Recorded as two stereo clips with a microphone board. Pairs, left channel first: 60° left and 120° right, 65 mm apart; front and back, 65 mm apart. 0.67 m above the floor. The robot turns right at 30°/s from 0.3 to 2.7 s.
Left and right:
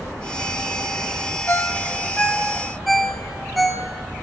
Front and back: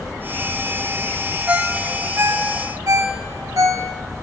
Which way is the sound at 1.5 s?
110° left.